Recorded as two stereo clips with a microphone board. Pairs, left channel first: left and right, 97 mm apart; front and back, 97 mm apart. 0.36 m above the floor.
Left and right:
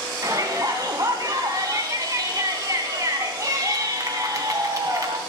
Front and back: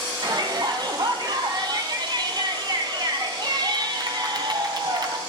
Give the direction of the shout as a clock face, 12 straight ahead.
5 o'clock.